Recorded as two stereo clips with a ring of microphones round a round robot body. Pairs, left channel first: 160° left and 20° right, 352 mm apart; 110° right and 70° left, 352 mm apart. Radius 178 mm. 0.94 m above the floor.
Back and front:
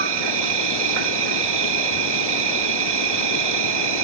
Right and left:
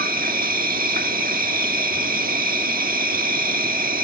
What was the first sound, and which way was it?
An insect, straight ahead.